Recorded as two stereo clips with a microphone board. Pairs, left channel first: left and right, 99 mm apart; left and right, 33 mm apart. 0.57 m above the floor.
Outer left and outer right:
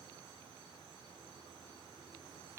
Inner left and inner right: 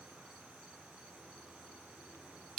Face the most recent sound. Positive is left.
No sound to turn to.